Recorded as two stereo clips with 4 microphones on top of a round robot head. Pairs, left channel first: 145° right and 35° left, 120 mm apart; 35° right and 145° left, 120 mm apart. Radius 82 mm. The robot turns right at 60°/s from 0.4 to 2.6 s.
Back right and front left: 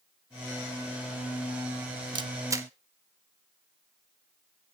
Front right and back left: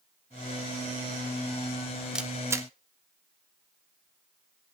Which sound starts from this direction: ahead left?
A camera shutter, at 2.1 s.